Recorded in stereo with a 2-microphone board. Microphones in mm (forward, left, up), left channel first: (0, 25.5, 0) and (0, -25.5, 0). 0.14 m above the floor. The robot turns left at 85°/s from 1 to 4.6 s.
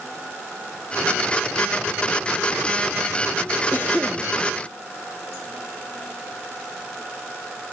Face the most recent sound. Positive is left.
turn(degrees=-30)